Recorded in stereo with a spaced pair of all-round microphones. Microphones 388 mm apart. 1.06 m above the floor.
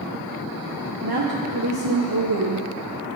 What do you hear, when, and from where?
1.0 s a woman speaking: 75° right (ahead or behind), 0.8 m